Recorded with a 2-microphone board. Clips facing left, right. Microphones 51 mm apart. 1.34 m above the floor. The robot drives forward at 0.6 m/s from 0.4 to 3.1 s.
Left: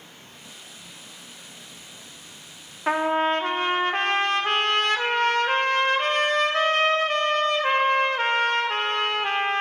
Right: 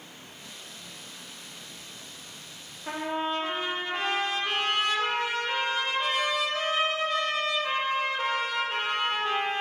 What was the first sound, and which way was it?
A trumpet, 60° left (ahead or behind).